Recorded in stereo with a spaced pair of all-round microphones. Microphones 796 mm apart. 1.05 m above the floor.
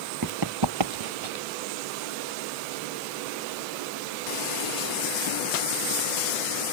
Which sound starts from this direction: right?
Running footsteps, at 0.2 s.